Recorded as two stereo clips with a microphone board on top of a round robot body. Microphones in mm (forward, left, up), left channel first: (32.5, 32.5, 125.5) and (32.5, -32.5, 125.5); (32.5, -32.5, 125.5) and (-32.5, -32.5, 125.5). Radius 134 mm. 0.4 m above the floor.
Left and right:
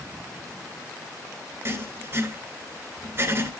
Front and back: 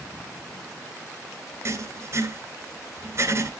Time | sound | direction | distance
1.6 | writing | 140° right | 3 m